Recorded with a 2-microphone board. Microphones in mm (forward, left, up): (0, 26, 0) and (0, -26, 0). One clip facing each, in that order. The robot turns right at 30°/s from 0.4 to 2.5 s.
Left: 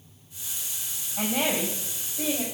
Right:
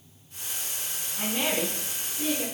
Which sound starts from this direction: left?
A woman speaking, at 1.2 s.